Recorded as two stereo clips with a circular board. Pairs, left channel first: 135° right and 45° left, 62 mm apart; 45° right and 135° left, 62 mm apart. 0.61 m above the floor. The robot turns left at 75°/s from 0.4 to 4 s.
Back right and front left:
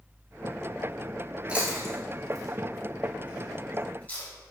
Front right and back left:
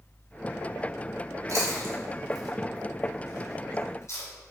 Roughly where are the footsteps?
No footsteps in this recording.